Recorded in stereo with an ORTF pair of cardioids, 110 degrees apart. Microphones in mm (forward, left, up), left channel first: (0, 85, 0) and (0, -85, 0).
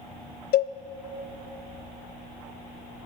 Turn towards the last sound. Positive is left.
turn(degrees=65)